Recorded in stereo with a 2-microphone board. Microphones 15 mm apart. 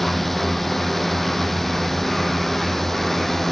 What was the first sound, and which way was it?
A drone, 10° left (ahead or behind).